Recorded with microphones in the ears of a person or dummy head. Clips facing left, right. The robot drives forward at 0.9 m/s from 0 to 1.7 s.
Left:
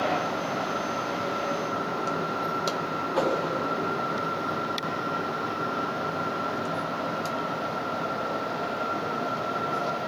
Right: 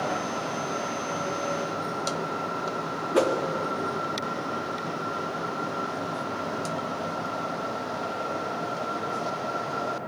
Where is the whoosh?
30° right (ahead or behind), 0.9 m.